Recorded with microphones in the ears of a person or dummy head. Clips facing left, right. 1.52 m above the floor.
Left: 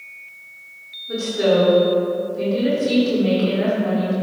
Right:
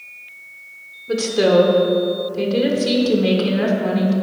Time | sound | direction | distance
1.1 | a woman speaking | 85° right | 1.5 m